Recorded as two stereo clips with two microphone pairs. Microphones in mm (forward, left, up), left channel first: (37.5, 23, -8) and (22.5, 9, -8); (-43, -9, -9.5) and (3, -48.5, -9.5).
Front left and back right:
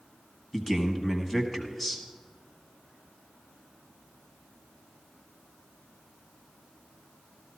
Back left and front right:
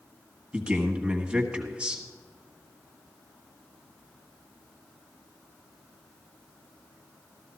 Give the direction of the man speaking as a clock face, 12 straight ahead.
1 o'clock.